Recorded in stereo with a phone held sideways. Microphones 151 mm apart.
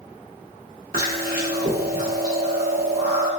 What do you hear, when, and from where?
0.9 s chewing: 75° right (ahead or behind), 1.0 m